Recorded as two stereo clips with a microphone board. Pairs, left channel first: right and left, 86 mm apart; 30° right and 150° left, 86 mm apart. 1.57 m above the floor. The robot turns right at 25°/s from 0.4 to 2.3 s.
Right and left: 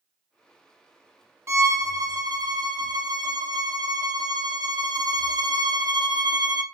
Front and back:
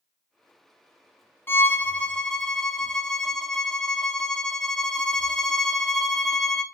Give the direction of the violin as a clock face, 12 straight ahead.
11 o'clock.